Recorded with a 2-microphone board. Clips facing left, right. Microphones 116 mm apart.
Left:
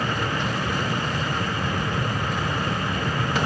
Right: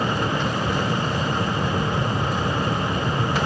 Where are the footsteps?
No footsteps in this recording.